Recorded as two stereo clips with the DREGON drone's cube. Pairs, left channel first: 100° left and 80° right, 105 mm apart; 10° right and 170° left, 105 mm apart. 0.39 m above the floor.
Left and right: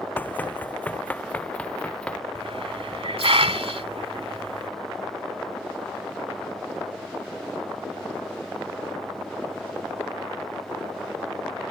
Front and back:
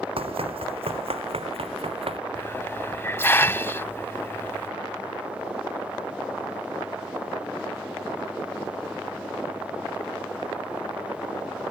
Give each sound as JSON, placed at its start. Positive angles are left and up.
{"t": 0.2, "sound": "running footsteps", "azimuth_deg": 170}
{"t": 2.4, "sound": "a hiss", "azimuth_deg": -80}